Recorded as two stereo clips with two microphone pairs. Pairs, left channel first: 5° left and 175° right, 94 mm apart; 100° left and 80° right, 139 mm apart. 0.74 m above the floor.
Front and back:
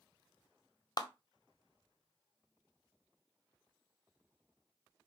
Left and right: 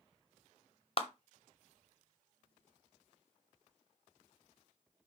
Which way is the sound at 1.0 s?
55° left.